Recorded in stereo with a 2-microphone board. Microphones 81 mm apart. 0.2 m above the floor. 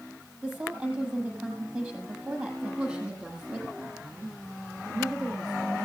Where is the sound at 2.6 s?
20° right (ahead or behind), 6.5 m.